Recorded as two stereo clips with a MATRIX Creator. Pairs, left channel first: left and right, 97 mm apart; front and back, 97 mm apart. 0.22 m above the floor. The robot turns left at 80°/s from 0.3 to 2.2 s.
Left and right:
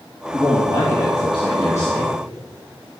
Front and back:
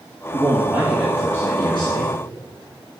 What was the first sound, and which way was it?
A man speaking, 145° left.